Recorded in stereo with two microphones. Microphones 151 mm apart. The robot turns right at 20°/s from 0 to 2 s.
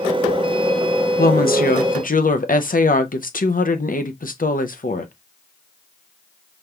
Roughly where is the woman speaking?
Left.